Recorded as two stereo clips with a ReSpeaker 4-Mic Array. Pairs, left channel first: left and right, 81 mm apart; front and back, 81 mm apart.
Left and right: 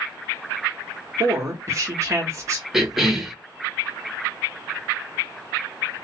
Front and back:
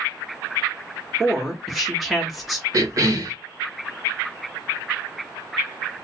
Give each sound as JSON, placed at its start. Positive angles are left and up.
{"t": 1.2, "sound": "a woman speaking", "azimuth_deg": -90, "distance_m": 1.2}
{"t": 2.7, "sound": "a cough", "azimuth_deg": -175, "distance_m": 0.8}